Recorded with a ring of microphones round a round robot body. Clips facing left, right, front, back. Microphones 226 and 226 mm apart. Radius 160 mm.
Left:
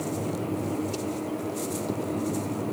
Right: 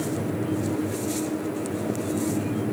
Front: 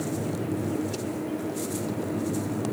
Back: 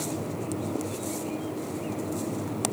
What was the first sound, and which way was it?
Only background noise.